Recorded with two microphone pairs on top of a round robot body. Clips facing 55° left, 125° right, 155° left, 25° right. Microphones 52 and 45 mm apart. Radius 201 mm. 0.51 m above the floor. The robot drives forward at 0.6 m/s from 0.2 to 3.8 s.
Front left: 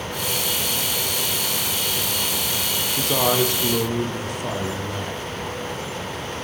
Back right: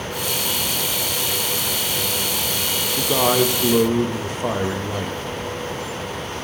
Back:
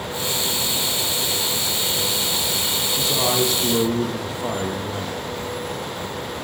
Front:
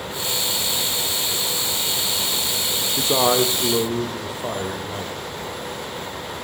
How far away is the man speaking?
About 0.8 m.